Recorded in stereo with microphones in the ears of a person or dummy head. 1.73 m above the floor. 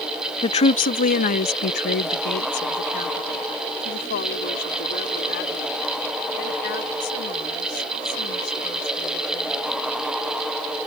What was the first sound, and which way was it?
A woman speaking, 25° left (ahead or behind).